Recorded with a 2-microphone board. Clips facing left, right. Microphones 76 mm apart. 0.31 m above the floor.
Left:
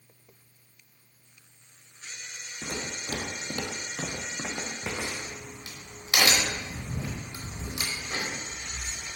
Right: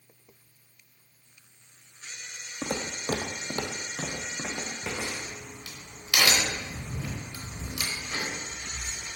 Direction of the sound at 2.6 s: 70° right (ahead or behind).